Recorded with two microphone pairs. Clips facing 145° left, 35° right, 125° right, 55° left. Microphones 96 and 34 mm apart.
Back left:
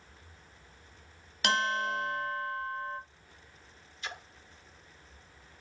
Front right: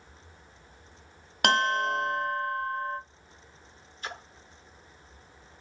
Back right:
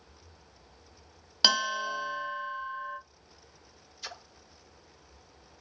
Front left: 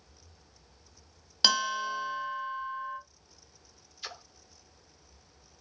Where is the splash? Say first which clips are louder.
Front right 3 dB, even; 15° right, 0.9 m.